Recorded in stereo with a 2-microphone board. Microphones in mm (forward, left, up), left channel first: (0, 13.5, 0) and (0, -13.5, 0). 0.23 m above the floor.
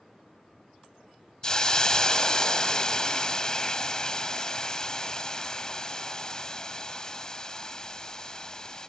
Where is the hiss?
30° left (ahead or behind), 0.6 m.